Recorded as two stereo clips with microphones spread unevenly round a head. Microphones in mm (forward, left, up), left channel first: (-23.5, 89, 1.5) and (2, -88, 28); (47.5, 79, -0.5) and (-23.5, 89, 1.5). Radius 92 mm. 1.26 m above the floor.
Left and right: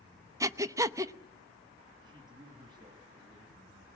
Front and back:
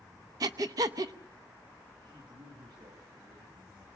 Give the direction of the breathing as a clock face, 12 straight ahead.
5 o'clock.